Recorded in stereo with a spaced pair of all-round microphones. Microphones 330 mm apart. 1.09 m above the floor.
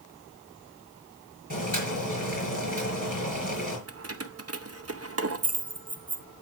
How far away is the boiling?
About 5.5 m.